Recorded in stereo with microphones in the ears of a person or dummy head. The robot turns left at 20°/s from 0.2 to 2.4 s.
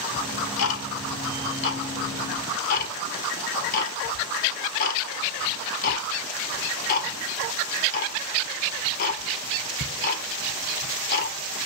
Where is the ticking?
70° left (ahead or behind), 1.8 m; by 11.4 s 50° left (ahead or behind), 1.8 m.